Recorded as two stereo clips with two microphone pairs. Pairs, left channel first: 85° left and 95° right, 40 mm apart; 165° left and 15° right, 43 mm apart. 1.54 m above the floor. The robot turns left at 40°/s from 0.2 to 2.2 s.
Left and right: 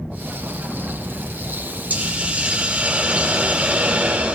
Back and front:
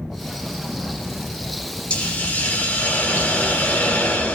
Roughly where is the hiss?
Behind right.